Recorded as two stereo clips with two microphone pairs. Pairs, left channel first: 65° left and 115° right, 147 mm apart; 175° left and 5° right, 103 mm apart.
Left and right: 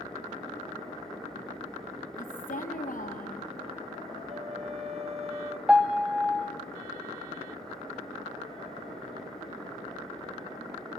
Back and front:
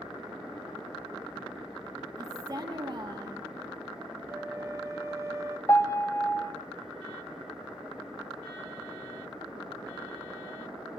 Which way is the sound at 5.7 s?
165° left.